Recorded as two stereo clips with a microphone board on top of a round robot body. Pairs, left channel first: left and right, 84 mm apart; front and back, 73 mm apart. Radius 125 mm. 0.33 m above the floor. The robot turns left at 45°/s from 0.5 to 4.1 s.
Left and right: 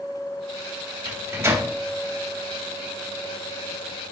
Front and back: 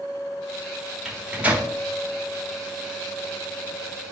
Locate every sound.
1.1 s a microwave: 105° right, 1.1 m; by 1.7 s 135° right, 1.1 m